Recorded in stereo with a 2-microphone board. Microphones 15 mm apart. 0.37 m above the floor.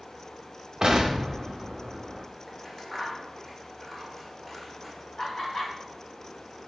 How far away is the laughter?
About 1.7 m.